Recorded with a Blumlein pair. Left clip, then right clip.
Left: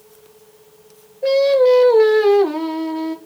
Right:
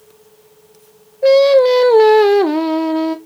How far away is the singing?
About 0.8 m.